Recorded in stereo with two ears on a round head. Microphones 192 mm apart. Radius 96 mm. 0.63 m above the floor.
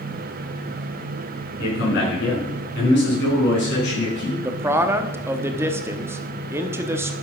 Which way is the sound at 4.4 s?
10° right (ahead or behind).